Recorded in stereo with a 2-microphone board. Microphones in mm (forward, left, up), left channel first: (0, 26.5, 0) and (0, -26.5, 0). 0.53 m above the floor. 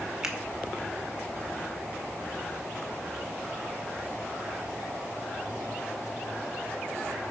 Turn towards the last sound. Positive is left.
turn(degrees=-10)  # may be behind; listen again after turning